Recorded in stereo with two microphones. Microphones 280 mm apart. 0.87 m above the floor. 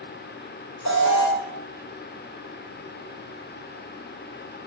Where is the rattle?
I don't hear a rattle.